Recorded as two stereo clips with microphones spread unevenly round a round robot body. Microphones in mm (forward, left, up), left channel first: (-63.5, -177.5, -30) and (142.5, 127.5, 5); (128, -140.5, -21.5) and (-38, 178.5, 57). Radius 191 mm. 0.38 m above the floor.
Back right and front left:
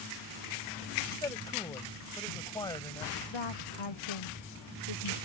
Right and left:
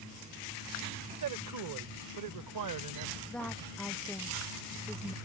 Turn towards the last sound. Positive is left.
turn(degrees=-150)